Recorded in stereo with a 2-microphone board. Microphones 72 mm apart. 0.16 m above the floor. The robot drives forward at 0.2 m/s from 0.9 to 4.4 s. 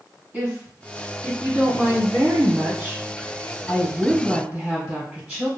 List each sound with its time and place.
0.3 s a woman speaking: 20° right (ahead or behind), 1.7 m